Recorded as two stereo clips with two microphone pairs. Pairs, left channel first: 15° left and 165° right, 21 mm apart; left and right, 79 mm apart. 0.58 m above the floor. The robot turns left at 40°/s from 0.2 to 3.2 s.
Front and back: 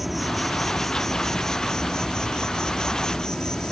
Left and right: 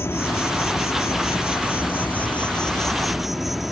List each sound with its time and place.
0.0 s an insect: 115° left; by 3.7 s 5° right